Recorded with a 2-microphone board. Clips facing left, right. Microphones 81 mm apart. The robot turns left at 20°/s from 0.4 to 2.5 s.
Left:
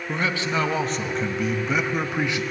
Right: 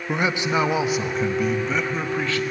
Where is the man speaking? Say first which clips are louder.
Right 3 dB; 160° right, 0.8 m; by 2.4 s 160° left, 0.8 m.